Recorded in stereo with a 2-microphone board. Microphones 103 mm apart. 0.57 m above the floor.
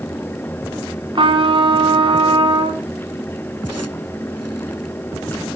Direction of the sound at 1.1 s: 55° right (ahead or behind).